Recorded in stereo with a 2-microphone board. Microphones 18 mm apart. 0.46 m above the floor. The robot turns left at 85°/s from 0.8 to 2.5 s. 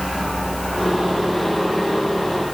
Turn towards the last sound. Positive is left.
No sound to turn to.